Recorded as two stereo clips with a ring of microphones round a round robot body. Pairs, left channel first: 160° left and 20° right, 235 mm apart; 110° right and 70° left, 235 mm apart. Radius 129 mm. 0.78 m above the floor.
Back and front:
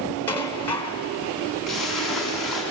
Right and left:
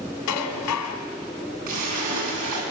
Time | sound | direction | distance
0.3 | dishes clattering | 120° right | 2 m
1.7 | a splash | 70° left | 5.5 m